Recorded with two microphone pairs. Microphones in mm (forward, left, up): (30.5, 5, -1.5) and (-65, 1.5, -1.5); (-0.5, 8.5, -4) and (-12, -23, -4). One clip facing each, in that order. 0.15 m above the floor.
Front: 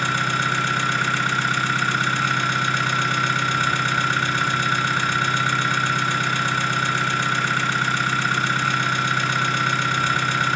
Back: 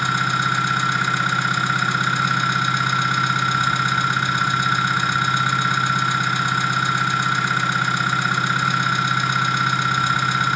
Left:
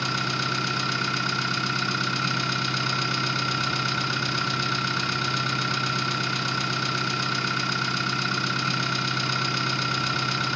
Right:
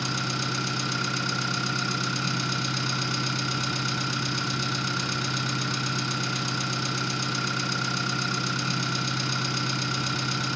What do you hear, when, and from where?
0.0 s an engine running: 125° left, 0.9 m